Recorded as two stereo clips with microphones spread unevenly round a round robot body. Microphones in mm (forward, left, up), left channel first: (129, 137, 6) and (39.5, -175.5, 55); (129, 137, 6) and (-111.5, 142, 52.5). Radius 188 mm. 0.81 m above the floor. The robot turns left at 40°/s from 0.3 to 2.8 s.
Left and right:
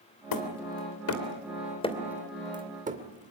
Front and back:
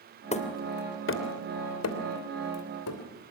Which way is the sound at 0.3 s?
60° left.